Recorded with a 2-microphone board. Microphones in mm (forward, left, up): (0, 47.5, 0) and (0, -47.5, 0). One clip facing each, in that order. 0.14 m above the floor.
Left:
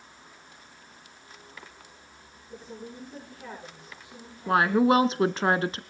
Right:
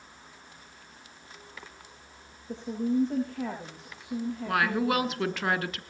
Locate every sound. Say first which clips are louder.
2.5 s a woman speaking: right 13 dB; 80° right, 8.5 m
4.5 s a woman speaking: left 7 dB; 30° left (ahead or behind), 1.3 m